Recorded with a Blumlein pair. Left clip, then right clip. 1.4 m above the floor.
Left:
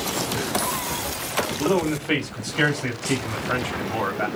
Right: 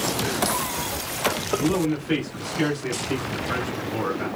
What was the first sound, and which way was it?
A man speaking, 35° left.